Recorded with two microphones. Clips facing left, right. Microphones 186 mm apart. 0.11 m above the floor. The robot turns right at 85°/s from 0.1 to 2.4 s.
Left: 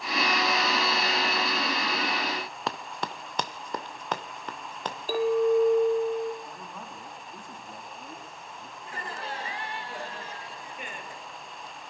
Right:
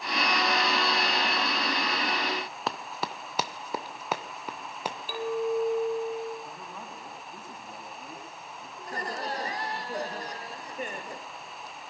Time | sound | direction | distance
2.7 | running footsteps | centre (ahead or behind) | 0.9 m
5.1 | a clink | 45° left (ahead or behind) | 2 m
6.4 | a man speaking | 5° right (ahead or behind) | 7 m
8.8 | laughter | 40° right (ahead or behind) | 2 m